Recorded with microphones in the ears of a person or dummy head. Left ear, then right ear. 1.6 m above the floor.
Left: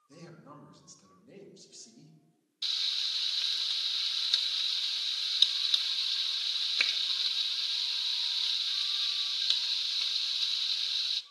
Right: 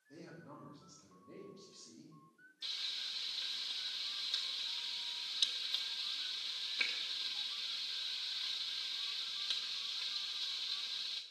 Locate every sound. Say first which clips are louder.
0.1 s a man speaking: left 2 dB; 75° left (ahead or behind), 2 m
2.6 s frying: left 10 dB; 40° left (ahead or behind), 0.5 m